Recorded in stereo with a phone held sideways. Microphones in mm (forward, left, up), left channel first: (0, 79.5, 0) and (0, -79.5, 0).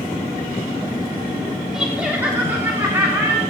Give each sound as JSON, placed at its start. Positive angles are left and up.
{"t": 1.7, "sound": "laughter", "side_deg": -5, "distance_m": 2.5}